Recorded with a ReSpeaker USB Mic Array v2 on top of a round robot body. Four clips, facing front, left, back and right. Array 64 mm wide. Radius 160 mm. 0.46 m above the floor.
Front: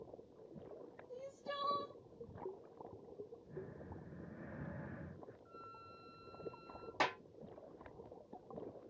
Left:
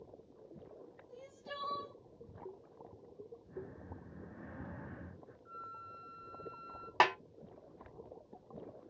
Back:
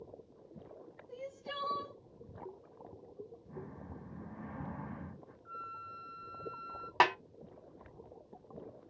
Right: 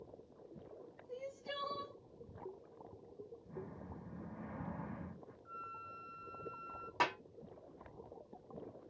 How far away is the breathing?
About 1.7 m.